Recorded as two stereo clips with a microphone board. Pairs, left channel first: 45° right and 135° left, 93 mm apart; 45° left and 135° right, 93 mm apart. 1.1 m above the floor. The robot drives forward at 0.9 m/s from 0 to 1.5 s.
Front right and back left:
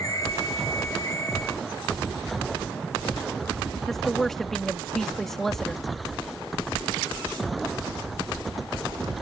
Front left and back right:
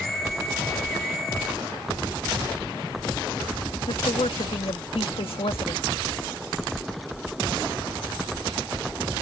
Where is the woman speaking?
40° left.